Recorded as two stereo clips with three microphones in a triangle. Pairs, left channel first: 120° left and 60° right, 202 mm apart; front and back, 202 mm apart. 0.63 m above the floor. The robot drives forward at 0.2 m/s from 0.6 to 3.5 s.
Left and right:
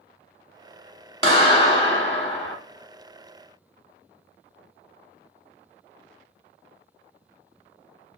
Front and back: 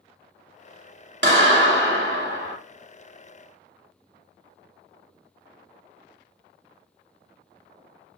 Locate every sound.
1.2 s a clap: 175° left, 1.0 m